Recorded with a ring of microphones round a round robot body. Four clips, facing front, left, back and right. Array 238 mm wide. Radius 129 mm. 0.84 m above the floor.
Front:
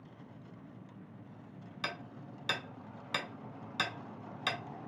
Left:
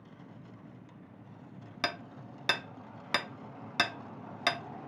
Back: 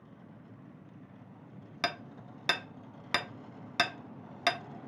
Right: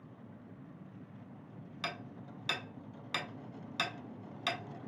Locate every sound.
1.8 s hammering: 135° left, 0.7 m